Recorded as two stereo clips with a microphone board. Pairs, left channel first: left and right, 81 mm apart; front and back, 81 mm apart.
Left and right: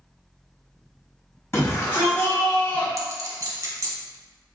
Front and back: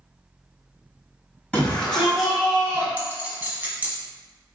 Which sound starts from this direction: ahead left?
A shout, at 1.5 s.